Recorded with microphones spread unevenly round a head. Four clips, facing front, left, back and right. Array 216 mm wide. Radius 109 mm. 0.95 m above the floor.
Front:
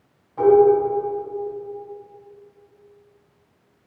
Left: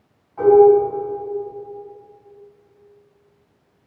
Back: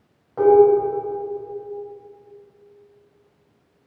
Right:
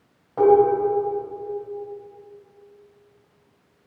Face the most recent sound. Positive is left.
turn(degrees=-130)